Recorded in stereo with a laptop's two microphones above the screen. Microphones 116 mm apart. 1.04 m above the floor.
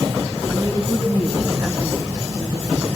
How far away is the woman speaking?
About 6.5 m.